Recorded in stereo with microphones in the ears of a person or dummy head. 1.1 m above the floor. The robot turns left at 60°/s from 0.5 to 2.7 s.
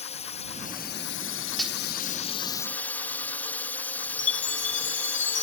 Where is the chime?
45° left (ahead or behind).